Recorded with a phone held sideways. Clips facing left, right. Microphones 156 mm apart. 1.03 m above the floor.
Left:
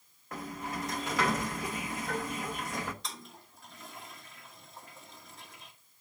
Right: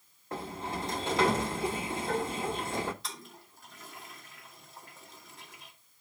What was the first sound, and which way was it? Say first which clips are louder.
A sliding door: right 2 dB; 30° right (ahead or behind).